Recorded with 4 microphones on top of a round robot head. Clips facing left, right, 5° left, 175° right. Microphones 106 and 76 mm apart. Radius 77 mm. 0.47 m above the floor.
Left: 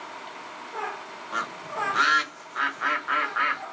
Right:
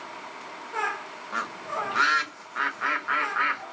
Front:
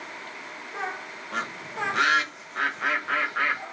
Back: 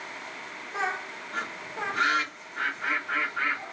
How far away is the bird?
About 1.0 m.